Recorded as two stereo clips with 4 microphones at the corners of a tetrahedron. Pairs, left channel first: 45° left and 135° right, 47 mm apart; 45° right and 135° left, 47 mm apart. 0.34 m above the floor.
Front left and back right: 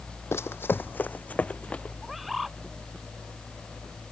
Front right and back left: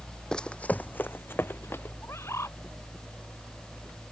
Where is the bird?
50° right.